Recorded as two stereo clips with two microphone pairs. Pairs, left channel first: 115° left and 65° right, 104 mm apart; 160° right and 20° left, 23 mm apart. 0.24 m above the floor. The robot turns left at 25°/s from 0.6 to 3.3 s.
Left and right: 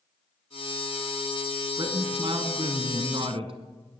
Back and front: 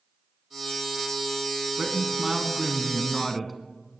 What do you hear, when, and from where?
1.8 s a man speaking: 35° right, 1.8 m; by 3.6 s 70° right, 1.8 m